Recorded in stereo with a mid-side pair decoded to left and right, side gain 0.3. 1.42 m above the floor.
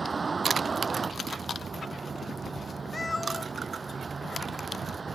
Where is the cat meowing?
35° left.